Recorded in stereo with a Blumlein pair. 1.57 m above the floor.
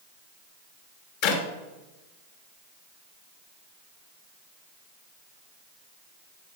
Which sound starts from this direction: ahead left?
A clap, at 1.2 s.